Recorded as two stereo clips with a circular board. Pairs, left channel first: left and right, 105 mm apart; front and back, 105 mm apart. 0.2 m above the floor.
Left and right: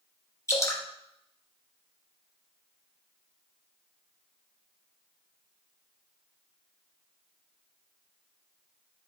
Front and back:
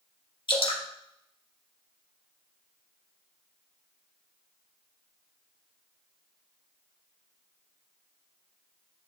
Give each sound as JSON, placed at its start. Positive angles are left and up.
{"t": 0.5, "sound": "dripping", "azimuth_deg": 30, "distance_m": 1.4}